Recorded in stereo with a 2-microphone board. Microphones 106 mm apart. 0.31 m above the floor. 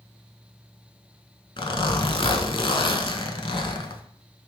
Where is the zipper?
55° left (ahead or behind), 0.5 m.